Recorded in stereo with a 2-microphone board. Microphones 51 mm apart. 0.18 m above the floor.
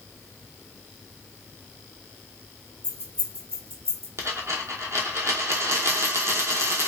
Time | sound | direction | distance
2.8 | keys jangling | 50° right (ahead or behind) | 1.6 m
4.2 | a dropped coin | 70° right (ahead or behind) | 0.7 m